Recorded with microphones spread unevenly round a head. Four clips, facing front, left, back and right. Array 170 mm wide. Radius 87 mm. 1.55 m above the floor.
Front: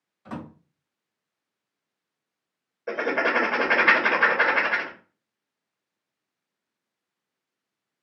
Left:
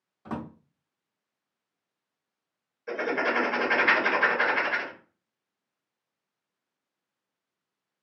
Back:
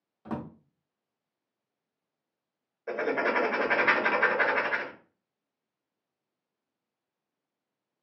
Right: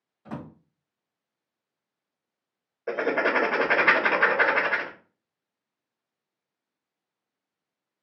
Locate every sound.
0.2 s a drawer: 155° left, 1.1 m
2.9 s writing: 50° right, 0.8 m